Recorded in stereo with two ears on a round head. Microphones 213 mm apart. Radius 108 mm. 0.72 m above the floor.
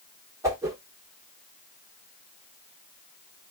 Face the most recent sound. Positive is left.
turn(degrees=-15)  # may be behind; listen again after turning